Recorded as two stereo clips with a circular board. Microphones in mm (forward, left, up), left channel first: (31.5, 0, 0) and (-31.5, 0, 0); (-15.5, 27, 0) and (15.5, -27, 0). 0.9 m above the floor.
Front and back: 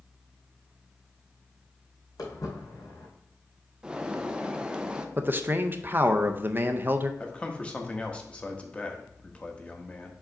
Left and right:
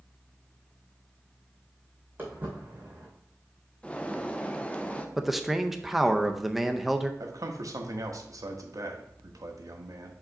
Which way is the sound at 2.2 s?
Straight ahead.